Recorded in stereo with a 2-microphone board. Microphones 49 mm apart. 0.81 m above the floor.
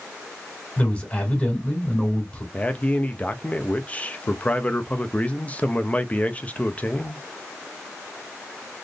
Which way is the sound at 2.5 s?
25° left (ahead or behind).